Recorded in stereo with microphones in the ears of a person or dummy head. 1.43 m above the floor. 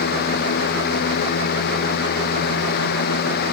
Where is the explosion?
I don't hear an explosion.